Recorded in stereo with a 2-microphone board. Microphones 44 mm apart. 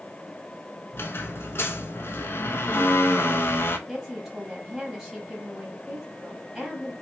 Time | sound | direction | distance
0.9 | a squeak | 60° left (ahead or behind) | 0.5 m
3.9 | a woman speaking | 5° right (ahead or behind) | 1.4 m